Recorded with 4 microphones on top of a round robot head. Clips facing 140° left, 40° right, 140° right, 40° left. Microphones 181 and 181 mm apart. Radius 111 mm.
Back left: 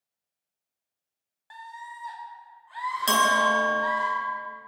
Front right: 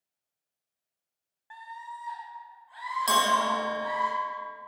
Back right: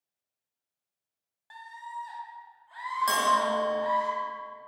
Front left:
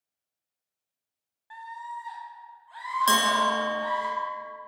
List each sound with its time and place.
1.5 s a scream: straight behind, 0.9 m; by 4.1 s 135° left, 3.5 m
3.1 s a bell: 90° left, 1.1 m